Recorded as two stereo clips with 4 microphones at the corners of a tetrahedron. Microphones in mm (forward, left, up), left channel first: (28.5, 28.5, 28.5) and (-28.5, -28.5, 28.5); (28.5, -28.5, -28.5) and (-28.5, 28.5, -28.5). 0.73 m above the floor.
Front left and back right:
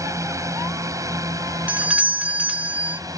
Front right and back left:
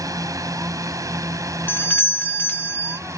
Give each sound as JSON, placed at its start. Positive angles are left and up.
{"t": 0.0, "sound": "a drone", "azimuth_deg": 180}
{"t": 1.7, "sound": "a doorbell", "azimuth_deg": -80}